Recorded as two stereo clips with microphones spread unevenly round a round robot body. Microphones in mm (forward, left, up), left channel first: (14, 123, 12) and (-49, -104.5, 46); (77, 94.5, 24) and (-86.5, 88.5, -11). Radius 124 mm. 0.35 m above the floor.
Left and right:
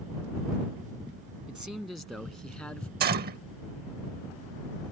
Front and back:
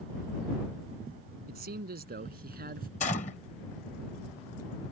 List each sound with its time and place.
1.5 s a man speaking: 165° left; by 2.9 s 160° left
3.0 s a gunshot: 55° right